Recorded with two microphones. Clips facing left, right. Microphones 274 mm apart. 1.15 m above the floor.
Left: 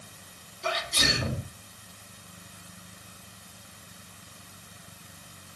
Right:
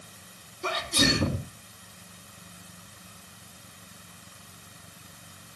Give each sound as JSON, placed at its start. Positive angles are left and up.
{"t": 0.6, "sound": "a sneeze", "side_deg": -60, "distance_m": 2.5}